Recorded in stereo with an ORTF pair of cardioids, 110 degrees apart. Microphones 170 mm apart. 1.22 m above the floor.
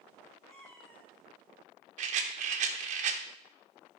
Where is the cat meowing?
20° left, 3.5 m.